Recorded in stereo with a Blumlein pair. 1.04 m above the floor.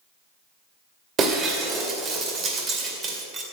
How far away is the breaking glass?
About 2.5 m.